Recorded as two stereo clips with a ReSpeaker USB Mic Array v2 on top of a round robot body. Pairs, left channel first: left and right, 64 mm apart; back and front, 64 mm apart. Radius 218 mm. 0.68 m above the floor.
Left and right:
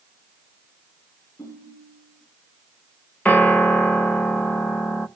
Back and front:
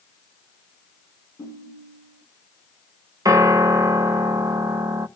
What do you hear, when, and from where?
1.4 s a ringtone: 140° left, 9 m
3.2 s a piano: 20° left, 1.5 m